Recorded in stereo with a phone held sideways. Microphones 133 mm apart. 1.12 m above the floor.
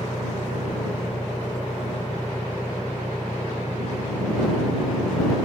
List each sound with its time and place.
0.0 s an engine running: 15° left (ahead or behind)